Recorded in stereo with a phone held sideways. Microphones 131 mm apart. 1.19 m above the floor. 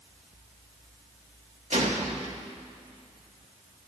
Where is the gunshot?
55° right (ahead or behind), 1.7 m.